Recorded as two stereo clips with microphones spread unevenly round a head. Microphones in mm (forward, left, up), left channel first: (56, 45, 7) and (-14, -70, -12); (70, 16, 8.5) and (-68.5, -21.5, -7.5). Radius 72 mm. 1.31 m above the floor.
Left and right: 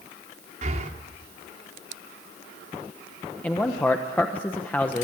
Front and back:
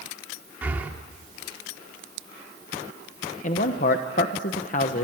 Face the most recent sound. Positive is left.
turn(degrees=-25)